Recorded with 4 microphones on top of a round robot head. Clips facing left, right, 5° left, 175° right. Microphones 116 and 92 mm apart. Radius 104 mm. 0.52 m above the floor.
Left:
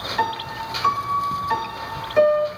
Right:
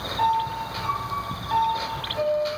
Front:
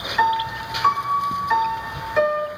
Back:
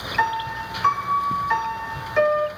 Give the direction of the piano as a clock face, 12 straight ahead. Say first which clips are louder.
Right 3 dB, front 3 dB; 9 o'clock.